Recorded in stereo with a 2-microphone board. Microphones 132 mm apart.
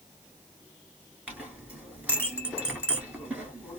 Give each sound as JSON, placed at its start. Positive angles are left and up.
{"t": 1.3, "sound": "a clink", "side_deg": -10, "distance_m": 1.5}